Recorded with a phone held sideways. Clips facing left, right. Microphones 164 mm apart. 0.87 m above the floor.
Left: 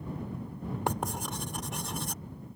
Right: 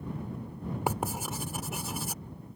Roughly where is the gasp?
I don't hear a gasp.